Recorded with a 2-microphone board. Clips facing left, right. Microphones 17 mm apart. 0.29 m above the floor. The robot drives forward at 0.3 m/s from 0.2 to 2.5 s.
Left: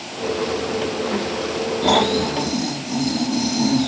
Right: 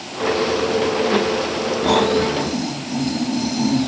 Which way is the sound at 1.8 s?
35° left (ahead or behind).